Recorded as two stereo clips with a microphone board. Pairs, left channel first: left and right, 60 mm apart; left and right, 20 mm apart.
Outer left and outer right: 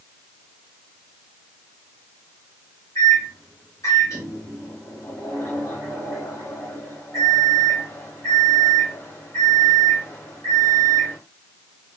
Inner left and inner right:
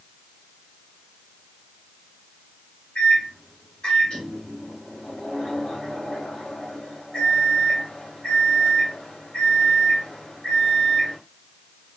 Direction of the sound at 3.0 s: 70° left (ahead or behind).